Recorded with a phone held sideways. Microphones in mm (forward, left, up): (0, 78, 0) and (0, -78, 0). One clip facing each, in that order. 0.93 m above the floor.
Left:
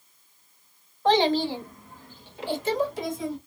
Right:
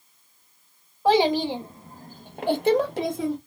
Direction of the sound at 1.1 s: 10° right (ahead or behind).